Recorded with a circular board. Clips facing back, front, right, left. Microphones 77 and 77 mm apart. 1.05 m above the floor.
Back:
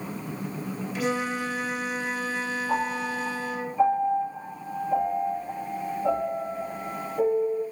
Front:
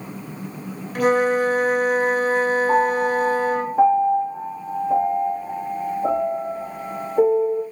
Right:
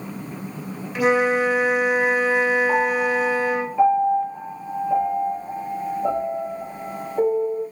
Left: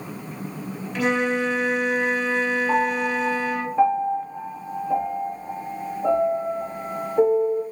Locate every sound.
0.9 s a flute: 10° right, 1.4 m
2.7 s a piano: 35° left, 5.5 m